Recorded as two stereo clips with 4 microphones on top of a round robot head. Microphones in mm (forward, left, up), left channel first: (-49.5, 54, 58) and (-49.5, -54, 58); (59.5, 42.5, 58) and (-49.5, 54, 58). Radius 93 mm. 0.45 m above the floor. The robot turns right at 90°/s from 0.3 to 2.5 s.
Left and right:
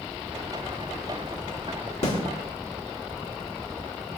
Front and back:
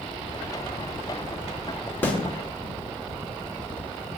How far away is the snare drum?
About 4.5 m.